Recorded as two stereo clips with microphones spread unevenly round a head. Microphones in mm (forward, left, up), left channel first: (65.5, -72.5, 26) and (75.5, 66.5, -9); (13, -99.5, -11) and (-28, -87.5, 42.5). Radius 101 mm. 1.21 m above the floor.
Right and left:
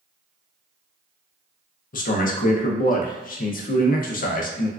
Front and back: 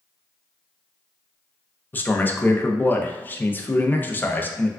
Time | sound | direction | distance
1.9 | a man speaking | 70° right | 0.6 m